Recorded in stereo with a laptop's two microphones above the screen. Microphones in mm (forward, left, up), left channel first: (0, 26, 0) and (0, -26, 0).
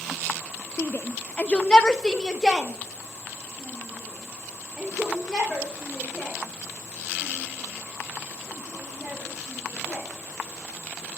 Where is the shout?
45° left (ahead or behind), 0.6 m; by 10.1 s 5° right (ahead or behind), 6.5 m.